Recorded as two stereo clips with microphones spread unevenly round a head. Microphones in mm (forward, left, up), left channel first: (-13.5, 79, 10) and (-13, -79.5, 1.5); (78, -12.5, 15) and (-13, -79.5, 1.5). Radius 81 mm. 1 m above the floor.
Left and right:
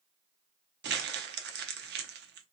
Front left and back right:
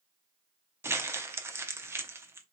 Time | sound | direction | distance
0.8 | crumpling | 75° right | 0.7 m